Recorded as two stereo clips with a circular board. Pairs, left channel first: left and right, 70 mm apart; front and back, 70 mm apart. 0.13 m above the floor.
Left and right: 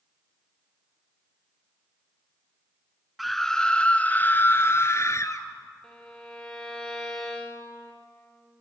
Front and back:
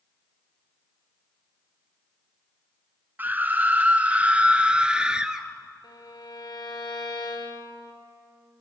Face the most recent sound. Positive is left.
turn(degrees=10)